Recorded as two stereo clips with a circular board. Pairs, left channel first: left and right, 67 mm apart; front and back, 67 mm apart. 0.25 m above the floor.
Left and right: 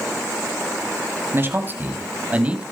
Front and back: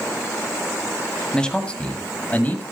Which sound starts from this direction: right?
A man speaking, at 1.3 s.